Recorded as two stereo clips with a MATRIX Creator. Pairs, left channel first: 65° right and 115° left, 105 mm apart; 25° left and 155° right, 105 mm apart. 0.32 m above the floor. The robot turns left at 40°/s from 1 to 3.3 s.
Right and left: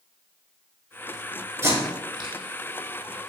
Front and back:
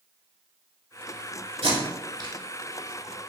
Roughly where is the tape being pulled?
Behind.